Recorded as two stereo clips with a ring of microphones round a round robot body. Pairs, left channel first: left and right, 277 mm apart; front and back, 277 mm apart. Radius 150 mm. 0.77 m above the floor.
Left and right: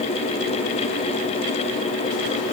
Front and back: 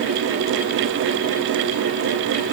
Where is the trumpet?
I don't hear a trumpet.